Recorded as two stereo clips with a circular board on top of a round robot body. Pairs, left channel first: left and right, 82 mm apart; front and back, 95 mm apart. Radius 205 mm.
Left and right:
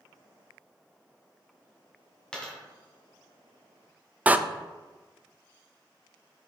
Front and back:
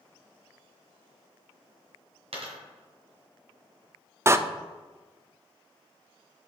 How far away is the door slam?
About 0.6 m.